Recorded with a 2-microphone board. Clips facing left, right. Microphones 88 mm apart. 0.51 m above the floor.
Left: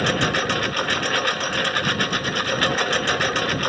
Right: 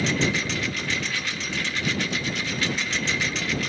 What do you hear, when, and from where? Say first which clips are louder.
0.0 s a lawn mower: left 3 dB; 55° left (ahead or behind)